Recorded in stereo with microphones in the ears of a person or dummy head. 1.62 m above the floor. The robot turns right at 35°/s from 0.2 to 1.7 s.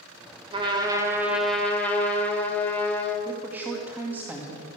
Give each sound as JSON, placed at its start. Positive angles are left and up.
{"t": 0.5, "sound": "a trumpet", "azimuth_deg": -30, "distance_m": 2.0}
{"t": 3.2, "sound": "a woman speaking", "side_deg": -5, "distance_m": 2.0}